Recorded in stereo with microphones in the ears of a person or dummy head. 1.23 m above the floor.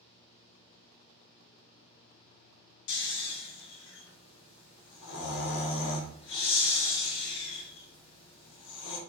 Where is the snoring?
60° left (ahead or behind), 0.7 m.